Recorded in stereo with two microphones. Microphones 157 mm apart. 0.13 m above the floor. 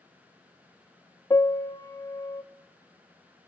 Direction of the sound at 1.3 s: 20° left (ahead or behind).